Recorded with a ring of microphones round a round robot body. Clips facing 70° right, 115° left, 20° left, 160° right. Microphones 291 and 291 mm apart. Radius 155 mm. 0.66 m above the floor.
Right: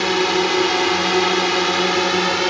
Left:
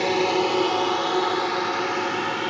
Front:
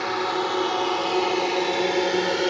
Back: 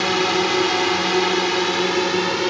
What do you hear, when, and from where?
0.0 s a drone: 130° right; by 2.5 s 85° right